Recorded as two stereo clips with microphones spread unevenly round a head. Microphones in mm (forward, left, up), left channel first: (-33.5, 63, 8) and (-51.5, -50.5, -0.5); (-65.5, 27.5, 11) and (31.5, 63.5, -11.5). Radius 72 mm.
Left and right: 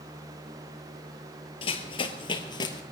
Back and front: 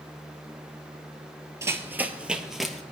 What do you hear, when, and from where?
1.6 s running footsteps: 85° left, 1.4 m; by 2.8 s 125° left, 1.6 m